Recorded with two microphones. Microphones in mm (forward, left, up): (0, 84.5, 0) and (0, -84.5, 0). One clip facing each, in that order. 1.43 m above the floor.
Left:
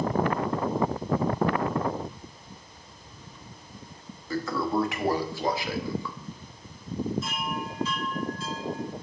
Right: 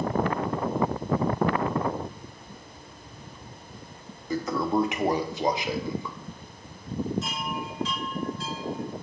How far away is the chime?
About 3.5 m.